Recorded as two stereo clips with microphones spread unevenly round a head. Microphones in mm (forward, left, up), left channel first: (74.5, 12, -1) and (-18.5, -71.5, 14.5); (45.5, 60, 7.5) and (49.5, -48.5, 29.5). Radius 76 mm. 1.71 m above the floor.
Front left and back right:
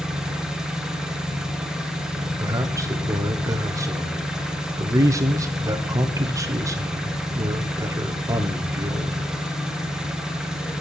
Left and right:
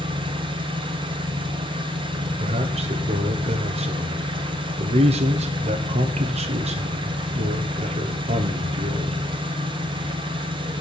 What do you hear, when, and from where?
0.0 s an engine running: 55° right, 1.0 m
2.4 s a man speaking: 75° right, 0.9 m